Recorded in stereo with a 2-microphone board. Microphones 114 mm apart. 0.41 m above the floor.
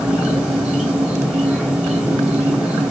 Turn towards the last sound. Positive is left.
turn(degrees=-10)  # may be behind; listen again after turning